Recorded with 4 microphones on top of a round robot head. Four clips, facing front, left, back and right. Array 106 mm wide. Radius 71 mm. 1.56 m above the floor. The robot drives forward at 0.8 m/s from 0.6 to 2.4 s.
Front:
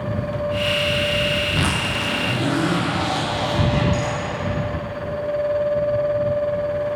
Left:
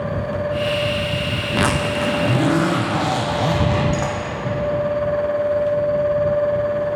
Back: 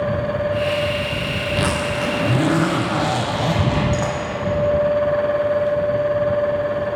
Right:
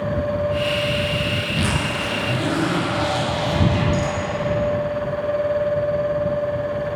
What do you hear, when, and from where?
1.4 s a zipper: 80° left, 0.7 m; by 4.2 s 130° left, 1.0 m